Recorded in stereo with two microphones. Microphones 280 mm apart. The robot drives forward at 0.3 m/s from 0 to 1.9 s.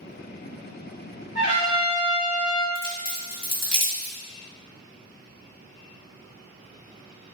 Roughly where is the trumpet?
Right.